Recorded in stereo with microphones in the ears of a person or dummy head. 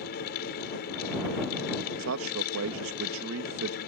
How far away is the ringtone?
No ringtone in this recording.